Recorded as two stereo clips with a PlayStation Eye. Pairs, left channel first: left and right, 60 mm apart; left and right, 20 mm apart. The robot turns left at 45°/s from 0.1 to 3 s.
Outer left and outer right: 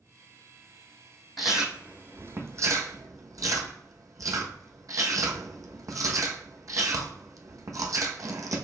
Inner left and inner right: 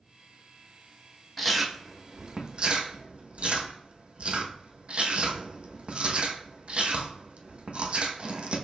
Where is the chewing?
Centre (ahead or behind), 1.0 m; by 8.7 s 70° right (ahead or behind), 1.0 m.